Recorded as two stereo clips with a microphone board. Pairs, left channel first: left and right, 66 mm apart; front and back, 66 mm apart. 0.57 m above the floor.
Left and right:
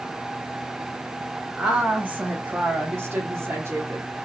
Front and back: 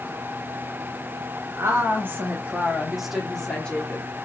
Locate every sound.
1.6 s a woman speaking: 160° right, 1.6 m; by 4.0 s 60° right, 1.6 m